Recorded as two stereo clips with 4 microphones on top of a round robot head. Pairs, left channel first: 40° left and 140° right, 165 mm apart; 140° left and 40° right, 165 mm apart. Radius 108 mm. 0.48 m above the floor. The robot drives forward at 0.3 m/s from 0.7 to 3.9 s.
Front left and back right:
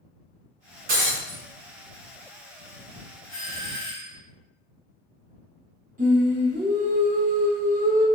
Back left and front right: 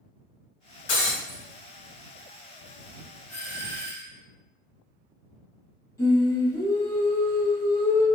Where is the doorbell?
130° right, 1.7 m; by 4.2 s 140° right, 1.8 m.